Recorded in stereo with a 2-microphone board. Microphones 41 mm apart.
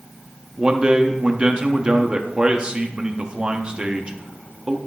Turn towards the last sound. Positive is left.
turn(degrees=-25)  # may be behind; listen again after turning